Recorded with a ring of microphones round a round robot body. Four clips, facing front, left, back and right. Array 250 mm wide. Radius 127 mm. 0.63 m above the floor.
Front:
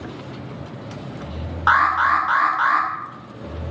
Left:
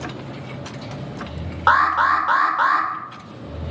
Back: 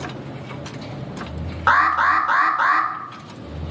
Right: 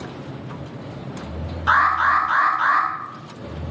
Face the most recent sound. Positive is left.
turn(degrees=120)